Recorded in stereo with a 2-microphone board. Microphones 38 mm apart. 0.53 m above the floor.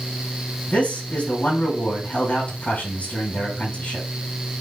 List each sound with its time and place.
0.7 s a man speaking: 45° left (ahead or behind), 4 m